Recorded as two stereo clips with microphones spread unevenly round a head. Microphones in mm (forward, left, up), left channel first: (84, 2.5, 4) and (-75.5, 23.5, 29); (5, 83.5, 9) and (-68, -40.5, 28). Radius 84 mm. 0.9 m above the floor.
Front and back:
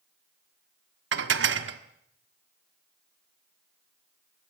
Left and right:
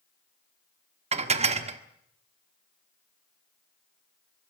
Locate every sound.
1.1 s dishes clattering: 165° right, 1.5 m